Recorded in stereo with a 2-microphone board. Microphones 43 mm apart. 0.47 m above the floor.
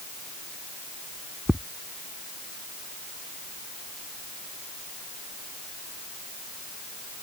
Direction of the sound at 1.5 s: Centre (ahead or behind).